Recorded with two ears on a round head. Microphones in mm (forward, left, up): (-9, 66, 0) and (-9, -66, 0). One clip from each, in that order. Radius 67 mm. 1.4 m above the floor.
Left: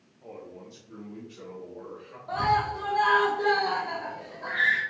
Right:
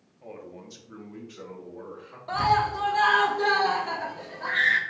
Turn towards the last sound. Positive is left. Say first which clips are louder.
# right 2 dB
turn(degrees=-65)  # may be behind; listen again after turning